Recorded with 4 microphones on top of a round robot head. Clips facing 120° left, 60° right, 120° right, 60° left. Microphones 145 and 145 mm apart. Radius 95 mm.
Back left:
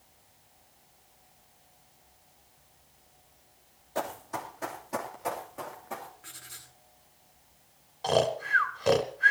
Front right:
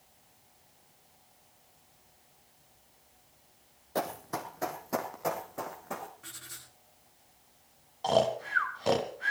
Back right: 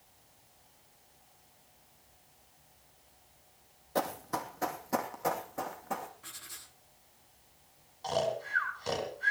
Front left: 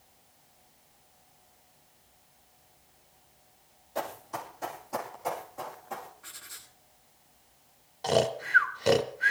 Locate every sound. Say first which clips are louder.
4.0 s running footsteps: even, back right 2 dB; 90° right, 2 m
6.2 s writing: front right 1 dB, front left 1 dB; 55° right, 9.5 m
8.0 s snoring: even, front left 6 dB; 35° left, 1.2 m